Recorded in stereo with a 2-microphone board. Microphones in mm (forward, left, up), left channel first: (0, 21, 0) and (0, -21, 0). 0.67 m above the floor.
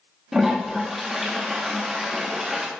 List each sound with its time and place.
0.3 s a toilet flushing: 10° right (ahead or behind), 1.0 m